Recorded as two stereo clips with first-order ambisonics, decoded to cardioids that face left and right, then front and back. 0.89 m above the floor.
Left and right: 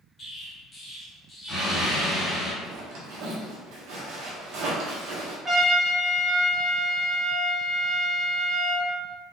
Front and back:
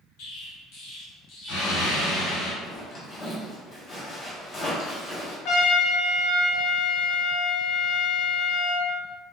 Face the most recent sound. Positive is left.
turn(degrees=-15)